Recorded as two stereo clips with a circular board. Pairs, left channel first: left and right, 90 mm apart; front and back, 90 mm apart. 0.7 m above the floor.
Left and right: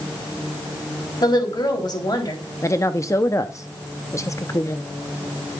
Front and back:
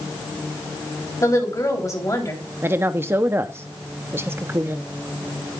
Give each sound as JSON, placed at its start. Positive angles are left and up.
{"t": 1.2, "sound": "a woman speaking", "azimuth_deg": 50, "distance_m": 3.0}
{"t": 2.6, "sound": "a woman speaking", "azimuth_deg": 130, "distance_m": 0.6}